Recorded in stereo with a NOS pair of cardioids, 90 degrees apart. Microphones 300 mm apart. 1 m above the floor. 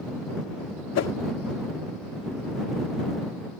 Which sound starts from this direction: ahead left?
A whoosh, at 0.9 s.